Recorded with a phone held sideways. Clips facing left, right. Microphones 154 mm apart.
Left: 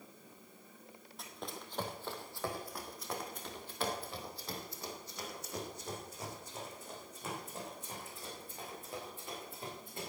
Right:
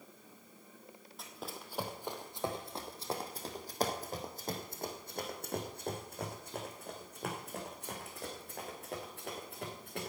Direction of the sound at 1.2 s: Centre (ahead or behind).